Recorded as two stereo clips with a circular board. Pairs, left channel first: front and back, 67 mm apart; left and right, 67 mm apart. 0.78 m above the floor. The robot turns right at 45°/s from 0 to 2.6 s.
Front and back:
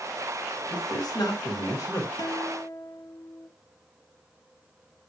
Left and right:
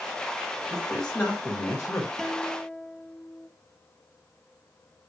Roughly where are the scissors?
No scissors in this recording.